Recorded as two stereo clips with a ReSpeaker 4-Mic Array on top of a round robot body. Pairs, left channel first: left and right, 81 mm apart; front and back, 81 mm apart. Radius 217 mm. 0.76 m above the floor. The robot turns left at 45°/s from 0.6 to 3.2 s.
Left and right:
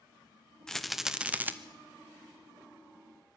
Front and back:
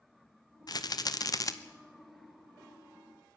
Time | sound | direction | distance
0.7 | a rattle | 10° left | 1.4 m